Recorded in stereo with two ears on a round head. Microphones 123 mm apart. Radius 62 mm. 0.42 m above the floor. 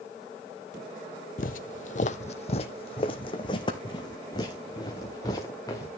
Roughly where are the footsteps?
Left.